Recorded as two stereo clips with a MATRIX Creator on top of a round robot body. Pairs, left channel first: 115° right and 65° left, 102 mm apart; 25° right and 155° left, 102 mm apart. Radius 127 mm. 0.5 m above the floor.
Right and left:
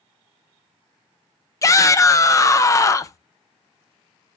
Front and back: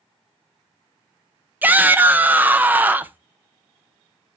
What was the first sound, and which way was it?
A shout, 140° right.